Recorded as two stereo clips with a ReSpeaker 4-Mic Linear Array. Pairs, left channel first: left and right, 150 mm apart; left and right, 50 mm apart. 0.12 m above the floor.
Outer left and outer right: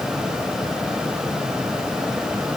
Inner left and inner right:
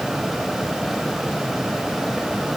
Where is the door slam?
I don't hear a door slam.